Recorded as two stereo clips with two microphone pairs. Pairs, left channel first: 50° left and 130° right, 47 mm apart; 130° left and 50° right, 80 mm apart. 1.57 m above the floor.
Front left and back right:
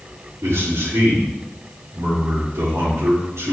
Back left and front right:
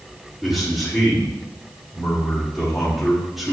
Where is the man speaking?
135° right, 3.5 m.